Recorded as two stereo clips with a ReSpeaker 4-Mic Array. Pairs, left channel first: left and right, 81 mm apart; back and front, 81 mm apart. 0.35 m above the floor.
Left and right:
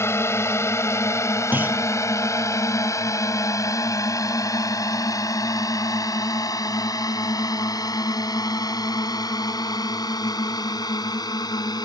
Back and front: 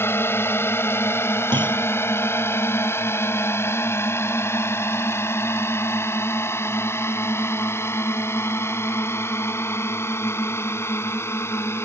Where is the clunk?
25° right.